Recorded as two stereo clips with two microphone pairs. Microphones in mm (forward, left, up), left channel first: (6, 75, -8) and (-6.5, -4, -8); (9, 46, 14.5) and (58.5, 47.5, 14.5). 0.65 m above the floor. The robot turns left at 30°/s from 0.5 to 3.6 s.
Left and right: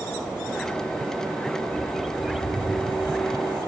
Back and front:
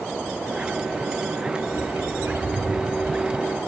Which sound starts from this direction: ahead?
A bird, at 1.7 s.